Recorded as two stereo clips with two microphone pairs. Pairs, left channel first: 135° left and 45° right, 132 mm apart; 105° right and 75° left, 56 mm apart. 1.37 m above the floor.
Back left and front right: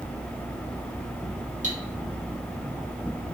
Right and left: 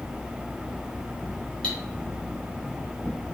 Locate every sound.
1.6 s cutlery clinking: 35° right, 1.4 m